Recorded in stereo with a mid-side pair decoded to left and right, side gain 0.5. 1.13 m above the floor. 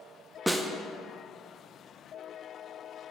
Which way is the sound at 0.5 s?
5° right.